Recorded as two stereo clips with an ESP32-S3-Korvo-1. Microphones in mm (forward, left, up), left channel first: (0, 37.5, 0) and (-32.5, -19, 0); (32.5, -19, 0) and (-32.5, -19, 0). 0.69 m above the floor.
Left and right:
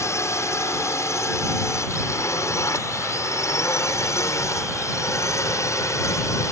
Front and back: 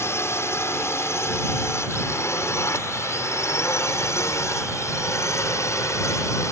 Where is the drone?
35° left; by 6.5 s 30° left.